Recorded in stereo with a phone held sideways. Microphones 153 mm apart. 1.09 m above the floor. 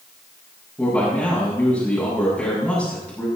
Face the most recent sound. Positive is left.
turn(degrees=5)  # may be behind; listen again after turning